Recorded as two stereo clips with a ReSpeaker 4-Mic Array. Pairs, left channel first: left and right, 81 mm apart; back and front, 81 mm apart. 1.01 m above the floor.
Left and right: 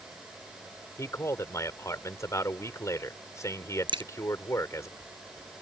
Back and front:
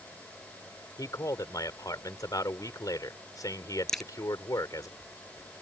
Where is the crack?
95° right.